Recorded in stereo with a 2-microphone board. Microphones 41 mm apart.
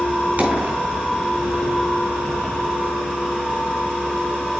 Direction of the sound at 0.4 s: 50° right (ahead or behind).